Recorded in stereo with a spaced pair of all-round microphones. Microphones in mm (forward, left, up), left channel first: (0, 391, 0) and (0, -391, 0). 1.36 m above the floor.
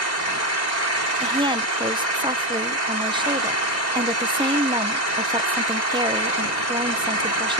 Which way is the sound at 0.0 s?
60° right (ahead or behind).